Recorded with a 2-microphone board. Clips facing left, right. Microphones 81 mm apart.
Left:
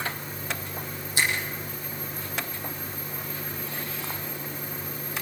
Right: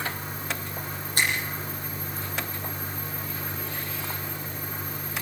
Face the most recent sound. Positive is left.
turn(degrees=-50)  # may be behind; listen again after turning